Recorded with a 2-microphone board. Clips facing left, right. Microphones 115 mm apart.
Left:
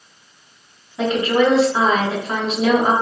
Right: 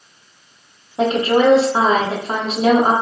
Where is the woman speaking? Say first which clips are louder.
Right 2 dB; 35° right (ahead or behind), 3 m.